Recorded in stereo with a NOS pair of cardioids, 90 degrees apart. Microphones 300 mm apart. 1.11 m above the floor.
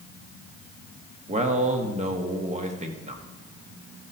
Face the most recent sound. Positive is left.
turn(degrees=-25)